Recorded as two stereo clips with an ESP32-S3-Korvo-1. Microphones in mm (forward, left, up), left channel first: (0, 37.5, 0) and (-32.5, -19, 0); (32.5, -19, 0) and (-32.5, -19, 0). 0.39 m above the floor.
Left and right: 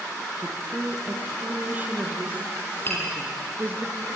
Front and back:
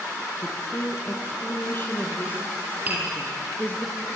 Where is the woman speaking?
50° right, 3.5 m; by 3.9 s 55° right, 5.5 m.